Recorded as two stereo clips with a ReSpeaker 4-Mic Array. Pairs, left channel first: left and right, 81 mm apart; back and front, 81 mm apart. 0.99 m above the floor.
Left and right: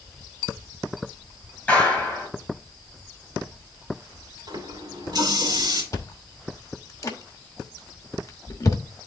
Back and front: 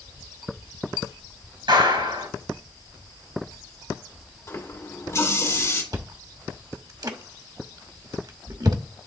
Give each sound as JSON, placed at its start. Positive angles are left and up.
{"t": 1.7, "sound": "a clap", "azimuth_deg": 10, "distance_m": 5.5}
{"t": 4.5, "sound": "a running tap", "azimuth_deg": -125, "distance_m": 2.5}
{"t": 5.9, "sound": "chewing", "azimuth_deg": 40, "distance_m": 1.0}